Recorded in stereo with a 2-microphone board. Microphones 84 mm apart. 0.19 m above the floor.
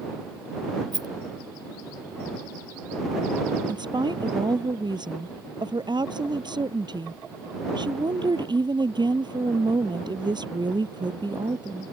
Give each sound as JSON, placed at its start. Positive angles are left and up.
{"t": 0.9, "sound": "a rattle", "side_deg": -55}
{"t": 3.7, "sound": "a woman speaking", "side_deg": -60}